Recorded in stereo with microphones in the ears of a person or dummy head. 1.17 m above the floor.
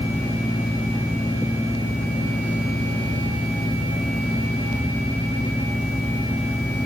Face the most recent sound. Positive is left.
No sound to turn to.